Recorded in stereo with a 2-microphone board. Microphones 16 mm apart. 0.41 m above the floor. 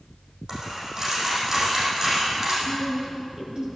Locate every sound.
0.5 s a dropped coin: 35° right (ahead or behind), 5.5 m
2.6 s a woman speaking: 45° right (ahead or behind), 5.5 m